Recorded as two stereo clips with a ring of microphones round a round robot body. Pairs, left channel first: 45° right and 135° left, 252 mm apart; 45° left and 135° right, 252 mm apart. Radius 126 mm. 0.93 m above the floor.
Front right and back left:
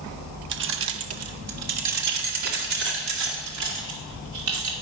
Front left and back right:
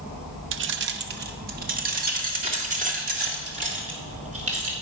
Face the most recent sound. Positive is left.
turn(degrees=160)